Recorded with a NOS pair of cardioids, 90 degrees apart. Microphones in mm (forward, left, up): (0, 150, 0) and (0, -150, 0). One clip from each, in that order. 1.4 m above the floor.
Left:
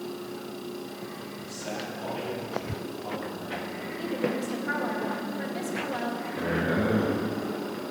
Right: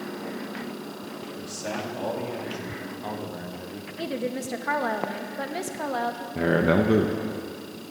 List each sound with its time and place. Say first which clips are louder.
1.4 s a man speaking: right 3 dB; 65° right, 3 m; by 3.9 s 50° right, 1.3 m
4.0 s a woman speaking: even; 45° right, 1.7 m
6.3 s a man speaking: right 7 dB; 60° right, 1.3 m